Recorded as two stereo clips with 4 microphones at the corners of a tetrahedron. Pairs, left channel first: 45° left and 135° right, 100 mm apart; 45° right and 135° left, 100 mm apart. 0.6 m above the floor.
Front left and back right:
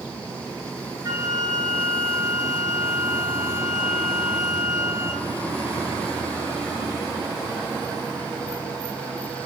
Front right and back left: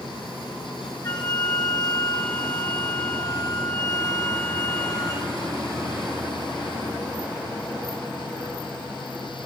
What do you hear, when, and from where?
1.0 s a flute: 85° right, 1.0 m